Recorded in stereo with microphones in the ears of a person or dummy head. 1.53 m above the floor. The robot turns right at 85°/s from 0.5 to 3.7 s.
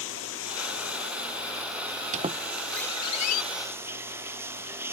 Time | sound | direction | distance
0.0 | running water | 75° left | ?
2.1 | a squeak | 35° right (ahead or behind) | ?